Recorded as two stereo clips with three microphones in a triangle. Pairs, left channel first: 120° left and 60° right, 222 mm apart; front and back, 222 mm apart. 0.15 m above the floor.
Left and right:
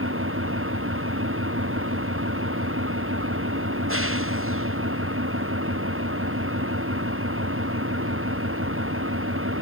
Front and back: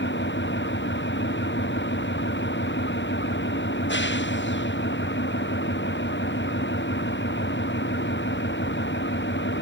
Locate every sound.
0.0 s an engine running: 35° right